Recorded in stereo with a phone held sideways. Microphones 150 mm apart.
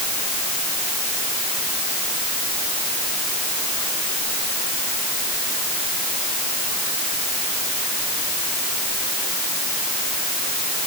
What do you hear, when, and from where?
Only background noise.